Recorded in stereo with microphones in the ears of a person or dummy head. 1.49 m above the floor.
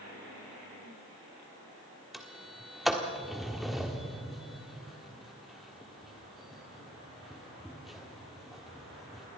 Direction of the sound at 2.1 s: 5° right (ahead or behind).